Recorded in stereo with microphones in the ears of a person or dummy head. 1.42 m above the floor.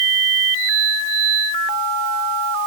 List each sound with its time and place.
Only background noise.